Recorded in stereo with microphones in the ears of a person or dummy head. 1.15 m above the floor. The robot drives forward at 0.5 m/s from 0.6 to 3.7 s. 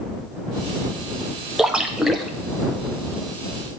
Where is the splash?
5° right (ahead or behind), 0.5 m.